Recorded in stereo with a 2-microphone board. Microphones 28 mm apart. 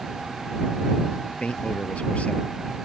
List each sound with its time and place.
1.2 s a man speaking: 45° left (ahead or behind); by 2.4 s 50° left (ahead or behind)